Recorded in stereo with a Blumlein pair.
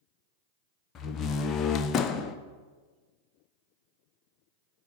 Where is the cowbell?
I don't hear a cowbell.